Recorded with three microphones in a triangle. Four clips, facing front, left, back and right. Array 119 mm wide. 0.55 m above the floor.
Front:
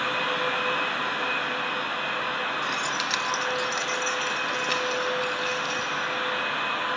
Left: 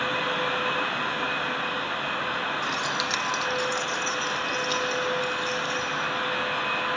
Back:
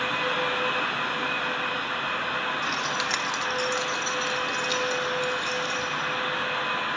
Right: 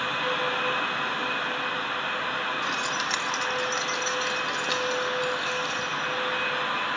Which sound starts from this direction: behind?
Keys jangling, at 2.6 s.